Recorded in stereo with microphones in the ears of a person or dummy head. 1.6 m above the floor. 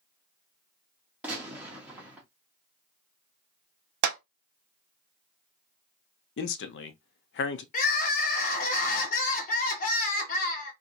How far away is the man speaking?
About 0.6 m.